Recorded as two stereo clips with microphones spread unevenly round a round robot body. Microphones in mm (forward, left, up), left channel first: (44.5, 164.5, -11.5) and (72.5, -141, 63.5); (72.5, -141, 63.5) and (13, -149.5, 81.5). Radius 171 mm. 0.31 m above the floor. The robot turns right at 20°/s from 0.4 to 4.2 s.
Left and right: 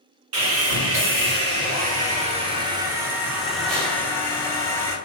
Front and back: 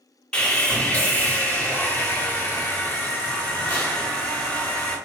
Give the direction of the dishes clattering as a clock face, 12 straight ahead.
I don't hear dishes clattering.